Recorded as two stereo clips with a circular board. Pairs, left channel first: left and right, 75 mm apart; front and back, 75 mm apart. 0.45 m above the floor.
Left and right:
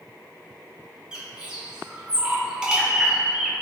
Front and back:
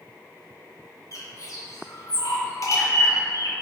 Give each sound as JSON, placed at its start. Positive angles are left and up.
{"t": 1.1, "sound": "a bird", "azimuth_deg": -15, "distance_m": 0.5}